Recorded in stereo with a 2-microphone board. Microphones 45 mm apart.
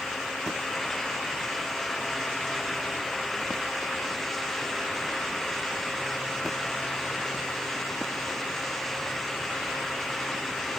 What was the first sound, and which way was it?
Only background noise.